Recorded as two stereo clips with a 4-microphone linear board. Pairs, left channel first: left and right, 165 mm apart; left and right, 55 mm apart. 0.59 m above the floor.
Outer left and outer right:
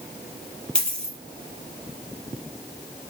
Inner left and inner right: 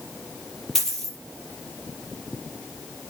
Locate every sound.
0.8 s a dropped coin: 5° left (ahead or behind), 3.5 m